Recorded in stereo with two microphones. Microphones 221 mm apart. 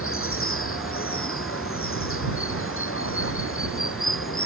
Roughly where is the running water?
Left.